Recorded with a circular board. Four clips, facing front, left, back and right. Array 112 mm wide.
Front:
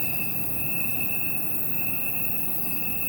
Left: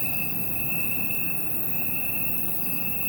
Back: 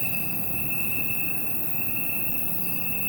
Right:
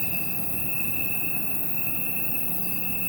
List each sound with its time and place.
0.0 s an insect: 160° left, 2.5 m